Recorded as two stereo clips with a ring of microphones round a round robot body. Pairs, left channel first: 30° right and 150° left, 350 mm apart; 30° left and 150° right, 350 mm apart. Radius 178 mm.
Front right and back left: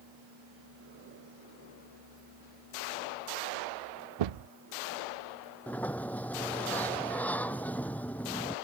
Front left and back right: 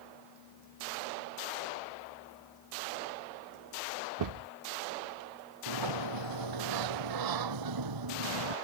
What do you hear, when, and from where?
4.2 s a thud: 170° left
5.7 s a sliding door: 115° right